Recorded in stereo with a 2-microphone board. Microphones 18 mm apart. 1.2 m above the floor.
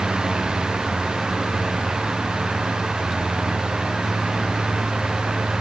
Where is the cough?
I don't hear a cough.